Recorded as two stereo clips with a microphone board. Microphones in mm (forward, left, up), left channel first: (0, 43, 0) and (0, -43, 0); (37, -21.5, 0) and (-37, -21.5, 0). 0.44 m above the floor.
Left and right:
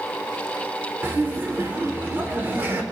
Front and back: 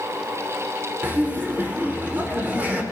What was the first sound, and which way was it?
Laughter, 135° right.